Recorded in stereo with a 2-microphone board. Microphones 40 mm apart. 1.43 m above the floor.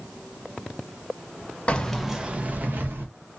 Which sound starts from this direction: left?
Keys jangling, at 1.7 s.